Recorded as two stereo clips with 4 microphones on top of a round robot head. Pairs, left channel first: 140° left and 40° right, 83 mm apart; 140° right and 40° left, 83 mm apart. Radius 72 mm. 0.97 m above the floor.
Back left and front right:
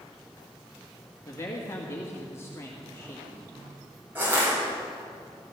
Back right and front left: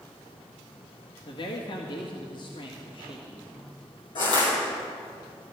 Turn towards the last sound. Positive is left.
turn(degrees=-115)